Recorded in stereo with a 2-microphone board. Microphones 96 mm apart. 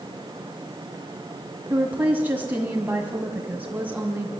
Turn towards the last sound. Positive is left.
turn(degrees=-20)  # may be behind; listen again after turning